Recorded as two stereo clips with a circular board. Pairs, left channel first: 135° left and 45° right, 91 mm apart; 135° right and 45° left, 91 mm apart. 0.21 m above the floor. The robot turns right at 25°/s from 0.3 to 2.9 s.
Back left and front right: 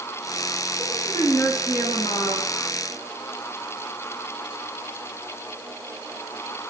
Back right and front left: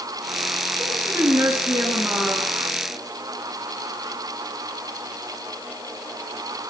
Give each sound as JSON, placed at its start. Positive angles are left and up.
{"t": 0.8, "sound": "a woman speaking", "azimuth_deg": 85, "distance_m": 3.0}